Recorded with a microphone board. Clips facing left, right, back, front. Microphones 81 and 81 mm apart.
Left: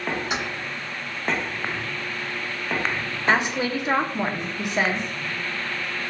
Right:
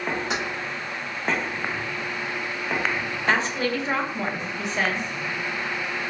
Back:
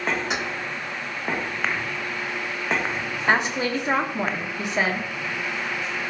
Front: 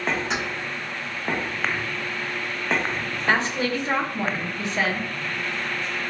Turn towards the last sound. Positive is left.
turn(degrees=140)